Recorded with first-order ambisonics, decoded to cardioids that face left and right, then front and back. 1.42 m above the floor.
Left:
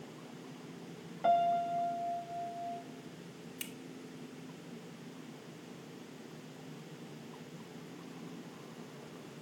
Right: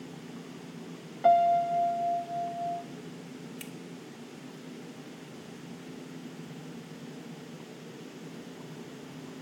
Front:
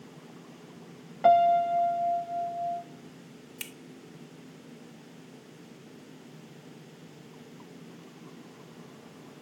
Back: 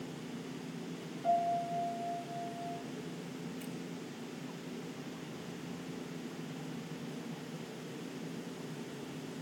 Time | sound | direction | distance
1.2 | a piano | 15° right | 0.6 m
3.6 | a finger snap | straight ahead | 0.9 m